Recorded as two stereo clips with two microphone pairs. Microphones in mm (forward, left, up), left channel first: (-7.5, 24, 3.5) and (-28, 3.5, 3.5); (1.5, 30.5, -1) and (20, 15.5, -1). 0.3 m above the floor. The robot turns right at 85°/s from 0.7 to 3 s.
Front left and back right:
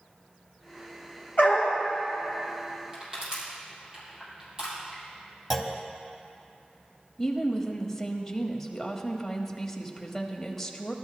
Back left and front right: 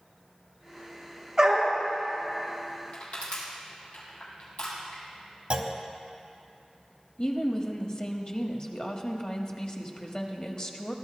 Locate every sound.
1.4 s a dog barking: 25° left, 2.5 m; by 1.8 s 55° left, 2.5 m
2.9 s crushing: 155° left, 5 m; by 5.0 s 160° left, 5 m
5.5 s a clunk: 60° right, 1.0 m
7.2 s a woman speaking: 120° left, 1.2 m